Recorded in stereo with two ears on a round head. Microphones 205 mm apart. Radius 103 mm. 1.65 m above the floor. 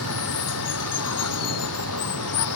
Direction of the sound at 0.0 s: 85° left.